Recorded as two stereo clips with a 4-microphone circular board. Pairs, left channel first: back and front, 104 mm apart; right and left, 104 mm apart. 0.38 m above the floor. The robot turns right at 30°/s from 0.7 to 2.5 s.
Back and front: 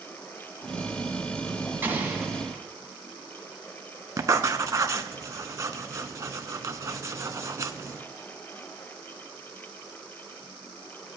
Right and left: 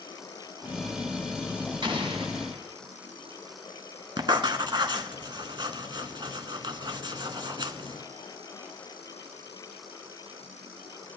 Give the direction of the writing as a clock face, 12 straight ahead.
10 o'clock.